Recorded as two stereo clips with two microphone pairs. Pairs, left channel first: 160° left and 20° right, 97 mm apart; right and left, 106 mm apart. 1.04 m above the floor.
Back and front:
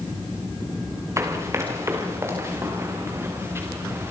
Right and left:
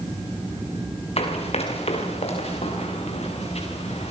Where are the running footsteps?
75° right, 4.5 m; by 4.1 s 80° right, 6.5 m.